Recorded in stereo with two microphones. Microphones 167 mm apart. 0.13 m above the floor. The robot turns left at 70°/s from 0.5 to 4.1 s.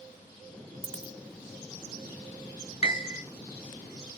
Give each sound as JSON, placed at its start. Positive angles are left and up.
{"t": 0.8, "sound": "a dropped coin", "side_deg": -35, "distance_m": 0.8}
{"t": 2.8, "sound": "a piano", "side_deg": 45, "distance_m": 0.8}